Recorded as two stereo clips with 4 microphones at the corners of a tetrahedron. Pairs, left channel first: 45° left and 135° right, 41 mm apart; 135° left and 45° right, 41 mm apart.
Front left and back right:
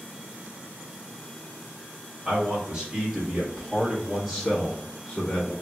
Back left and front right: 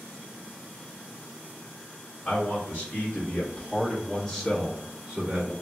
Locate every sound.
2.2 s a man speaking: 165° left, 2.0 m; by 5.5 s 15° left, 1.3 m